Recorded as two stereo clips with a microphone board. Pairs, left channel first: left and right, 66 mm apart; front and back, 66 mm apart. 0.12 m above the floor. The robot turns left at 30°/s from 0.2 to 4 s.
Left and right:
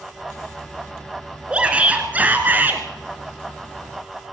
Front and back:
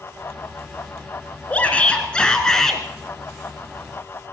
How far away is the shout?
About 1.1 m.